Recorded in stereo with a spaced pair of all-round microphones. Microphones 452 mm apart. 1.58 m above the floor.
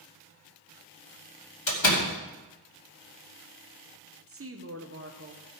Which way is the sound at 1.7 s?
75° left (ahead or behind).